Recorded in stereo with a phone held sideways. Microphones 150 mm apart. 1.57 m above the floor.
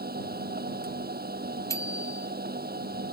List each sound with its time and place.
0.0 s a machine running: 80° right
1.7 s a bicycle bell: 20° left (ahead or behind)